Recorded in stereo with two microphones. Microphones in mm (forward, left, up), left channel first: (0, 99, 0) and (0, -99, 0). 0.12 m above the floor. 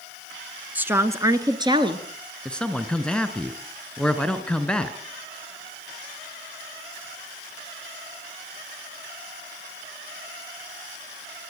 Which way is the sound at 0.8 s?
10° right (ahead or behind).